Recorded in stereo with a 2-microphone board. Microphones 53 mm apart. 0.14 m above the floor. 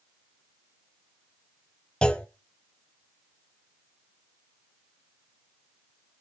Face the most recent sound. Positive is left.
turn(degrees=15)  # may be behind; listen again after turning